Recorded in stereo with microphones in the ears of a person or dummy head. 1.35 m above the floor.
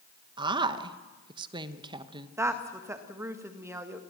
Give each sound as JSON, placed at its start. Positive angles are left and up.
{"t": 0.4, "sound": "a woman speaking", "side_deg": -20, "distance_m": 1.2}
{"t": 2.4, "sound": "a woman speaking", "side_deg": -20, "distance_m": 1.7}